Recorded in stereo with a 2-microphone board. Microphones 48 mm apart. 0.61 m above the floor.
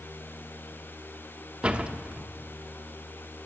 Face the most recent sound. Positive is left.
turn(degrees=-25)  # may be behind; listen again after turning